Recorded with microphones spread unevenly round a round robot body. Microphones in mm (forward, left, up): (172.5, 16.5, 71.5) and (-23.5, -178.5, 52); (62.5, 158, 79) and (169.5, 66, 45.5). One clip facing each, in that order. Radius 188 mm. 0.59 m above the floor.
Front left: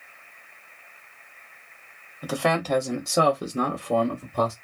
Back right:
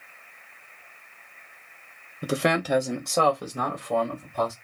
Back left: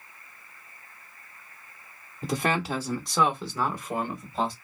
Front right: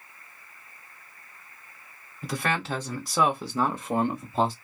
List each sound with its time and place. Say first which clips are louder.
2.2 s a man speaking: back right 1 dB, back left 2 dB; 155° right, 0.7 m; by 4.5 s straight ahead, 1.1 m